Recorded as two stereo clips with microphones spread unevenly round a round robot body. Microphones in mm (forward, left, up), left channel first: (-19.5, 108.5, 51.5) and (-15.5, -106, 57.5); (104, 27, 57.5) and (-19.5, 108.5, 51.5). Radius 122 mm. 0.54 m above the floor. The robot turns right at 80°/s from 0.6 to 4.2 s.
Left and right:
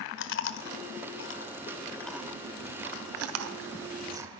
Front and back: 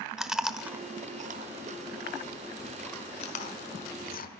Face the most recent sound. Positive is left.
turn(degrees=-10)